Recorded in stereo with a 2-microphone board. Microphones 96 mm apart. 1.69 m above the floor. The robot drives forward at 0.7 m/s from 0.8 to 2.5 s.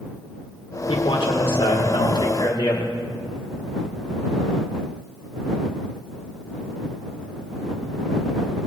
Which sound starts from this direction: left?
A man speaking, at 0.9 s.